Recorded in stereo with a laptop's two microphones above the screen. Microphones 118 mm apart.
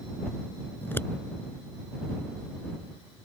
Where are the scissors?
20° left (ahead or behind).